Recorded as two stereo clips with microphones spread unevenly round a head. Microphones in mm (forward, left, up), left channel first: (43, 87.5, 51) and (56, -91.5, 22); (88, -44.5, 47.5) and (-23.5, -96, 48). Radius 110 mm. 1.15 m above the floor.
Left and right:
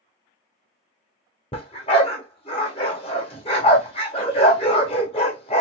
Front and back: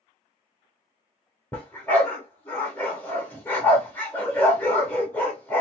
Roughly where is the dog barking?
Left.